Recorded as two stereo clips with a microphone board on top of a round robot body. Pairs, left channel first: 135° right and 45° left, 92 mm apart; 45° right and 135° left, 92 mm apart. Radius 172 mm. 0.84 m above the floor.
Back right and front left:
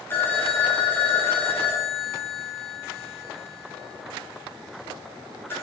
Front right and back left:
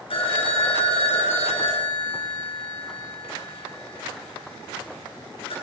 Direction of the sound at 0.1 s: 65° right.